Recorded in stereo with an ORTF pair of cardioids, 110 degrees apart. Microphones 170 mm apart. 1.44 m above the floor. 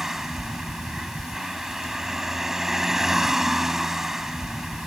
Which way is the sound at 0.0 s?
Straight ahead.